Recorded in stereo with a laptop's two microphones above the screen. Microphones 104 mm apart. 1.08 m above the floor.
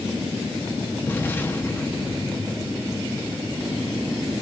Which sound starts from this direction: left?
An explosion, at 1.1 s.